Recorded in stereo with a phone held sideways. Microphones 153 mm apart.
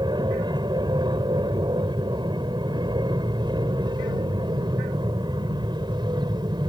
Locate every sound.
0.0 s an aircraft: 30° right (ahead or behind)